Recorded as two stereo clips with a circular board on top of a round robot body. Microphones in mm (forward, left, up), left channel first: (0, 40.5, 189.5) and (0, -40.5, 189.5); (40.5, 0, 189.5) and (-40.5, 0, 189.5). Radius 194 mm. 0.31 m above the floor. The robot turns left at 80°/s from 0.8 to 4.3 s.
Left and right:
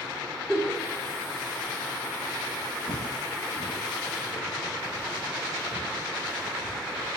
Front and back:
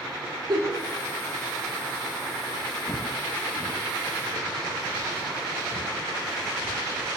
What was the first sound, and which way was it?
A giggle, 175° right.